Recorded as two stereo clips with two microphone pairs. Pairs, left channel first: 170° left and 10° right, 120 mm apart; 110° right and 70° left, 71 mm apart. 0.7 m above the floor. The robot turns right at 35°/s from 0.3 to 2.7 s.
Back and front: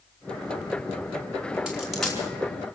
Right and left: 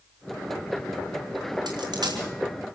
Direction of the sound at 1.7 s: 70° left.